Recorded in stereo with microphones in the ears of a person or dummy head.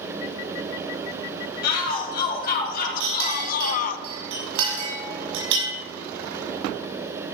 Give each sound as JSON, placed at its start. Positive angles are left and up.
{"t": 1.6, "sound": "a shout", "side_deg": 50, "distance_m": 3.5}
{"t": 3.0, "sound": "a clink", "side_deg": -75, "distance_m": 5.0}